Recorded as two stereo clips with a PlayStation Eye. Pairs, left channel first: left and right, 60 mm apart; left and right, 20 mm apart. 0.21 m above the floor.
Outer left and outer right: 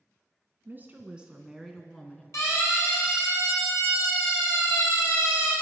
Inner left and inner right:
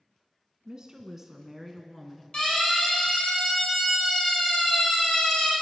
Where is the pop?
No pop in this recording.